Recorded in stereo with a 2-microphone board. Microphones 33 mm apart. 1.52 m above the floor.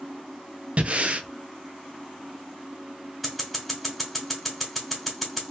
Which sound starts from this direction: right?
Breathing, at 0.8 s.